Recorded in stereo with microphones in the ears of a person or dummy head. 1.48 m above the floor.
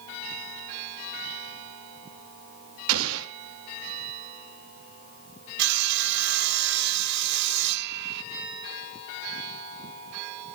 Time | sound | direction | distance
2.9 | an explosion | 80° right | 2.5 m
5.6 | sawing | 65° right (ahead or behind) | 1.3 m